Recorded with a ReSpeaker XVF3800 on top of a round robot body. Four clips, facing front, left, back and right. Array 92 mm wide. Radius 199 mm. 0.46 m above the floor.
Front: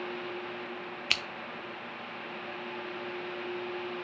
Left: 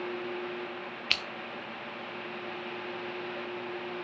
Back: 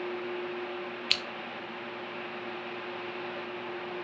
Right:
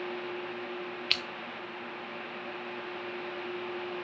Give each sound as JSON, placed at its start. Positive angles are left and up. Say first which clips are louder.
{"t": 1.1, "sound": "scissors", "louder": "left 2 dB, front 3 dB", "azimuth_deg": 30, "distance_m": 1.3}